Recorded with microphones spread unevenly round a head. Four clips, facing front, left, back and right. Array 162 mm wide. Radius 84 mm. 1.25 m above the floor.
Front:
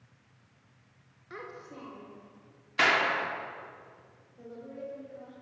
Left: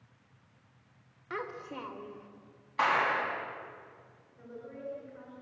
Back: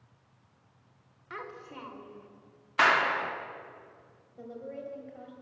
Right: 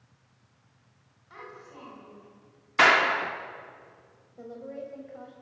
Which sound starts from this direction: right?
A clap, at 2.8 s.